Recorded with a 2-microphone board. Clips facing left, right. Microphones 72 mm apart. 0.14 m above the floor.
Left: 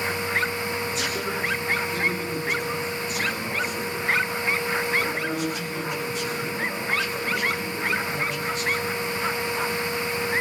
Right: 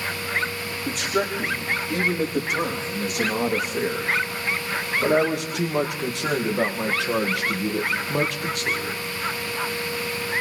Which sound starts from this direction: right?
A man speaking, at 0.8 s.